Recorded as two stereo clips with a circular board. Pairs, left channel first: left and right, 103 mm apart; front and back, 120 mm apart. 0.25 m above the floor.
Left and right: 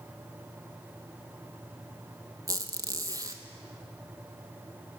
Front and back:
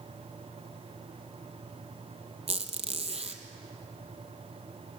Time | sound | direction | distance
2.5 | a squeak | 145° right | 1.5 m